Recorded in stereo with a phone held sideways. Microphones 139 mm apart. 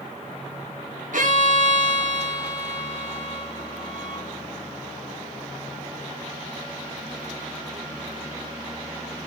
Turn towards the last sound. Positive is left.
turn(degrees=-70)  # may be behind; listen again after turning